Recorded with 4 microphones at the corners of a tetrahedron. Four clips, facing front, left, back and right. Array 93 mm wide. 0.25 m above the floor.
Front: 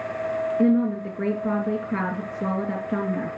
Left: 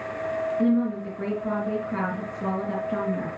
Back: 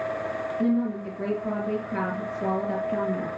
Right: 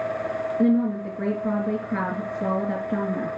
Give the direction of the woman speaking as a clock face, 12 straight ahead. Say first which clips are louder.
Right 3 dB, front 4 dB; 1 o'clock.